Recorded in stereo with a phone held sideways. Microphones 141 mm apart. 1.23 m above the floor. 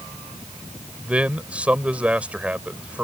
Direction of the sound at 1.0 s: 10° right (ahead or behind).